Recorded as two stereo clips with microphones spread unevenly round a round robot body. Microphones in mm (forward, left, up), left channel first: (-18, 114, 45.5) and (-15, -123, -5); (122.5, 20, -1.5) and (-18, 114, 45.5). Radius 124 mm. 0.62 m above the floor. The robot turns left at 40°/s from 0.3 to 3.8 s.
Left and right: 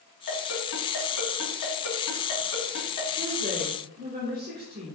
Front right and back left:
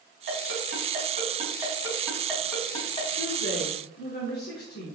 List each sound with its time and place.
0.3 s a ringtone: 130° left, 3.5 m; by 3.1 s 20° left, 3.5 m
3.2 s a woman speaking: 15° right, 1.6 m; by 5.0 s 40° right, 1.6 m